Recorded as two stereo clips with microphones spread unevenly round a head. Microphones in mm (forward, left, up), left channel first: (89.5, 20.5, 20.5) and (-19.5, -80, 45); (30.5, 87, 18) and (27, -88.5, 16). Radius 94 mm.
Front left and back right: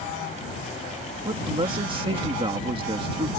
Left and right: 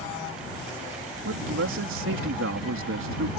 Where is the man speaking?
80° right.